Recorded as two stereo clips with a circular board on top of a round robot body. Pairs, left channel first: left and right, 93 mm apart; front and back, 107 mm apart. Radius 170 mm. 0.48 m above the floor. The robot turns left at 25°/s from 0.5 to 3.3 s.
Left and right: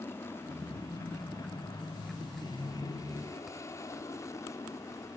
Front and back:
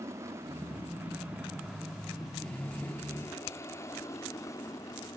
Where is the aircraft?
135° left; by 5.2 s 45° left.